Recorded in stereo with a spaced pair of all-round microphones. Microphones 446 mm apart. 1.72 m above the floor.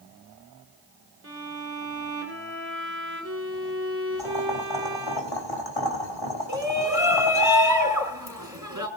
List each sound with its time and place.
1.2 s a violin: 30° right (ahead or behind), 3 m
4.2 s boiling: 75° left (ahead or behind), 3 m
6.5 s a shout: 40° right (ahead or behind), 5.5 m